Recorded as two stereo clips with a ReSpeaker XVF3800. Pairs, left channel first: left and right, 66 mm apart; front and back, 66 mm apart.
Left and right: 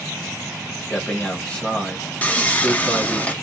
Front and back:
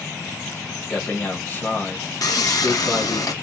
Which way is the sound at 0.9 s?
35° left.